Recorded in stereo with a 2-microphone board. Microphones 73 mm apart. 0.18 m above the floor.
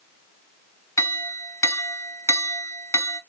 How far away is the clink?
About 0.9 m.